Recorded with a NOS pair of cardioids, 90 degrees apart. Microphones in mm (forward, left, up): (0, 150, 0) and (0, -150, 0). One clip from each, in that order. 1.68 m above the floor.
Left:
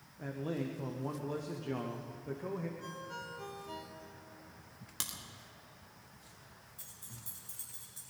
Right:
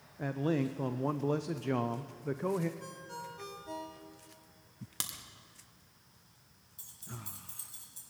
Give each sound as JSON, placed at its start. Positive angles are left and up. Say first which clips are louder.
{"t": 0.2, "sound": "a man speaking", "louder": "right 6 dB", "azimuth_deg": -40, "distance_m": 0.7}
{"t": 2.8, "sound": "a ringtone", "louder": "even", "azimuth_deg": -45, "distance_m": 2.5}
{"t": 5.0, "sound": "a crack", "louder": "right 1 dB", "azimuth_deg": -15, "distance_m": 1.9}
{"t": 6.8, "sound": "keys jangling", "louder": "right 6 dB", "azimuth_deg": -20, "distance_m": 5.0}